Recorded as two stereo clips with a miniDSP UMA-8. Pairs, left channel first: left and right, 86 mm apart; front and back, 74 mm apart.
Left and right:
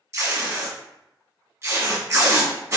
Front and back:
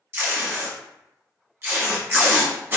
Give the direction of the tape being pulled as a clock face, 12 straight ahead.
4 o'clock.